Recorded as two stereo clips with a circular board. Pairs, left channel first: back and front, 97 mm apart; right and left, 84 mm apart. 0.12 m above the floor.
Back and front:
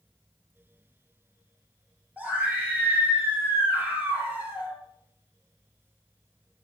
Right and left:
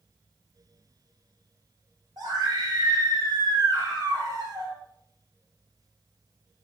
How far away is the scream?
About 3 m.